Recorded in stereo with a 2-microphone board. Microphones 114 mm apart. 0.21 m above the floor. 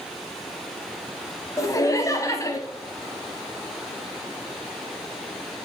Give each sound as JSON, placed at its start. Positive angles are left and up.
{"t": 1.6, "sound": "laughter", "side_deg": 30, "distance_m": 1.1}